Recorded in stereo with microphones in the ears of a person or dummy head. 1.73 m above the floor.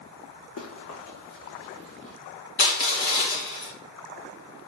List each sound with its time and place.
0.6 s running footsteps: 75° left (ahead or behind), 7.5 m; by 2.1 s 70° left (ahead or behind), 8.5 m
2.6 s crushing: 55° left (ahead or behind), 4.5 m